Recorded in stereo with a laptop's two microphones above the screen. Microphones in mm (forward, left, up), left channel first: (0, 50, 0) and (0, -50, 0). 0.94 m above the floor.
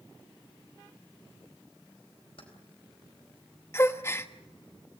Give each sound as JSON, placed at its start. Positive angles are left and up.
{"t": 2.4, "sound": "keys jangling", "side_deg": 65, "distance_m": 4.0}
{"t": 3.7, "sound": "a gasp", "side_deg": 25, "distance_m": 1.2}